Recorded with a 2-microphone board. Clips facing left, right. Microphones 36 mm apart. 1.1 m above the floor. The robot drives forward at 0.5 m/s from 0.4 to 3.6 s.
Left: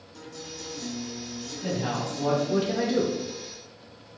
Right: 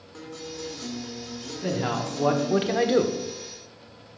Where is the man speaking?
30° right (ahead or behind), 1.2 m; by 3.1 s 50° right (ahead or behind), 0.8 m.